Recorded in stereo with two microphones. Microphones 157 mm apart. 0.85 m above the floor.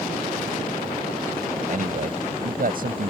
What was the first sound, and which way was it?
A man speaking, 60° right (ahead or behind).